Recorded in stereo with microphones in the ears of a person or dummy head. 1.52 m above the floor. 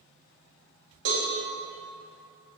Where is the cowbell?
70° right (ahead or behind), 1.8 m.